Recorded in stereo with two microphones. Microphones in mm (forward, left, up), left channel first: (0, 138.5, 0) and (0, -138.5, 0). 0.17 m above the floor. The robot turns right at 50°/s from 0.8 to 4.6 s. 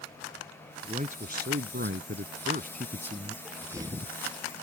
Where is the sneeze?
175° left; by 4.2 s 145° right.